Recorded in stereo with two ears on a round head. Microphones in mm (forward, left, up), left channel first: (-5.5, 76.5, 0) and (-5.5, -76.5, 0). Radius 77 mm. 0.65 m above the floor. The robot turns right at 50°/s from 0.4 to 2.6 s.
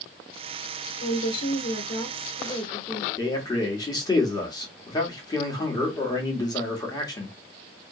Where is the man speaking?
25° left (ahead or behind), 1.3 m.